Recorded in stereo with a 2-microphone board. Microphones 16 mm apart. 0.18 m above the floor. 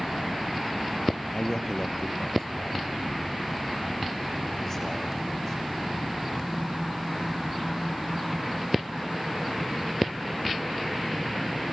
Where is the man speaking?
35° left (ahead or behind), 3.5 m; by 6.4 s 25° left (ahead or behind), 10.5 m.